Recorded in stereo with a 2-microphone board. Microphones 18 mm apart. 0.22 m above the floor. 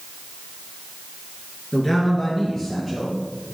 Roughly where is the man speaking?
Left.